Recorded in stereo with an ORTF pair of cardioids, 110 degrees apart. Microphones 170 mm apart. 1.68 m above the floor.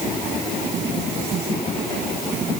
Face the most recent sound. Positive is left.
No sound to turn to.